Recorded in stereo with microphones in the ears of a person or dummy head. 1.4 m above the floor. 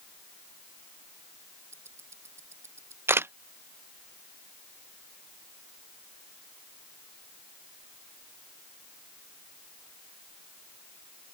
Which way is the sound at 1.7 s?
10° right (ahead or behind).